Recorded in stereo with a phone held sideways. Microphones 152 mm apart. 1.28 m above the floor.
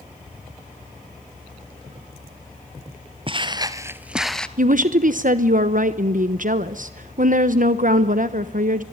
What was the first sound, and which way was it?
Footsteps, 35° right (ahead or behind).